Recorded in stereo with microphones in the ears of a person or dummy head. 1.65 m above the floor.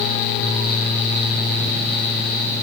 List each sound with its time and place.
Only background noise.